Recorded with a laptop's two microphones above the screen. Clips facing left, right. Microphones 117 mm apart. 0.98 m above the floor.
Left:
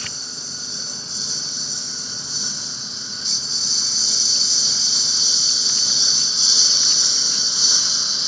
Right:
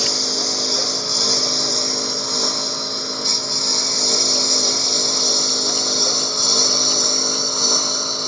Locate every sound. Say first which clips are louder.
0.0 s a lawn mower: right 14 dB; 70° right (ahead or behind); by 8.3 s 50° right (ahead or behind)